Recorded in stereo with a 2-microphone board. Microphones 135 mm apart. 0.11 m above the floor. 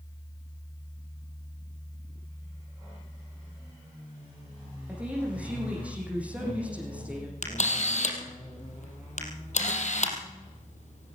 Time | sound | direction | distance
4.9 | a woman speaking | 10° right (ahead or behind) | 6 m
7.4 | a camera shutter | 60° left (ahead or behind) | 3 m